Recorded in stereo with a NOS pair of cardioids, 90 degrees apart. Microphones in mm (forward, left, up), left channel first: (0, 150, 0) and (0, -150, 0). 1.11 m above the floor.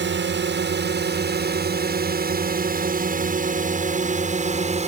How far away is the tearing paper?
No tearing paper in this recording.